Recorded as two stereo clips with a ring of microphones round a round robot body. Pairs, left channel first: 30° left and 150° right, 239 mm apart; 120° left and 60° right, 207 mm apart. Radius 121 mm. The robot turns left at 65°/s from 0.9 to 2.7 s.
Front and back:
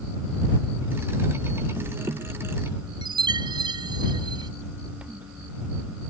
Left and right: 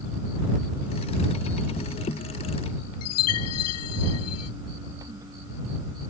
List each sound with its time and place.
3.0 s a chime: 135° left